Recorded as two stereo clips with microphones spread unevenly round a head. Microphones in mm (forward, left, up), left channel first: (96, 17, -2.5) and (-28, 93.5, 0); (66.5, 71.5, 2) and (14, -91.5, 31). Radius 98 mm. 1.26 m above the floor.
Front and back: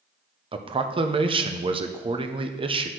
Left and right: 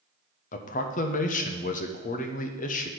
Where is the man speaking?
100° left, 0.7 m.